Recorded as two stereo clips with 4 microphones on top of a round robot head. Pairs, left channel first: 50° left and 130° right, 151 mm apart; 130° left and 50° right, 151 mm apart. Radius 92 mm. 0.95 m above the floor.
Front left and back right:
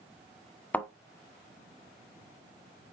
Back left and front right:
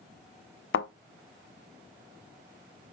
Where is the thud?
135° left, 0.9 m.